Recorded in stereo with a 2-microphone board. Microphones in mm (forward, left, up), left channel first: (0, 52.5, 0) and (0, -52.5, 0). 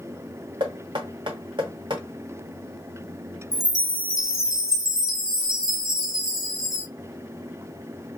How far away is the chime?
About 2 m.